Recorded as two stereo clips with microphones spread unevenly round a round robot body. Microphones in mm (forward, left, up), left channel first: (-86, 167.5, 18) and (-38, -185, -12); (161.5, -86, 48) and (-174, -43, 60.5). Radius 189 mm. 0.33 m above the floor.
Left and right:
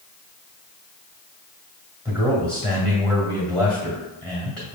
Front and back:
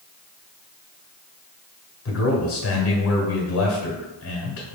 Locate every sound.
2.0 s a man speaking: 5° left, 1.7 m